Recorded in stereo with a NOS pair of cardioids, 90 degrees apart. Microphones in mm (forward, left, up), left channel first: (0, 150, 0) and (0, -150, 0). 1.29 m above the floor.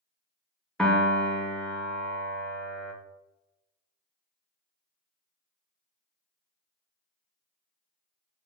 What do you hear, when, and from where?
0.8 s a piano: straight ahead, 0.5 m